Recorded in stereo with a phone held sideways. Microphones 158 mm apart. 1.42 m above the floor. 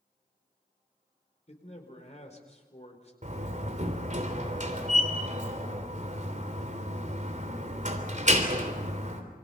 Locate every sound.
1.5 s a man speaking: 45° left (ahead or behind), 4.5 m
3.2 s a door slam: 50° right (ahead or behind), 3 m